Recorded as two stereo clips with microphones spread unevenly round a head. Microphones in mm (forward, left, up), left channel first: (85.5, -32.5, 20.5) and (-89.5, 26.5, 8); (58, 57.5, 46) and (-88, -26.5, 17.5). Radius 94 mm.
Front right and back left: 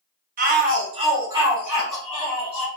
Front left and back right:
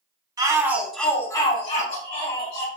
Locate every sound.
0.4 s a shout: 160° left, 1.0 m; by 2.7 s 55° left, 1.3 m